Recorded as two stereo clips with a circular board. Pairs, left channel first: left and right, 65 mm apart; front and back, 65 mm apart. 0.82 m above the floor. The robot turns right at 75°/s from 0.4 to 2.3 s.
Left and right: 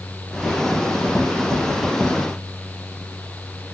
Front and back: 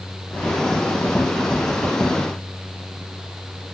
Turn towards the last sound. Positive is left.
No sound to turn to.